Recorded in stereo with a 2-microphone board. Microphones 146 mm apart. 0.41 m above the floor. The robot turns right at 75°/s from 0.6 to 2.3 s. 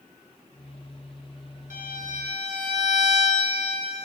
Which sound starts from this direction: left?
A violin, at 1.7 s.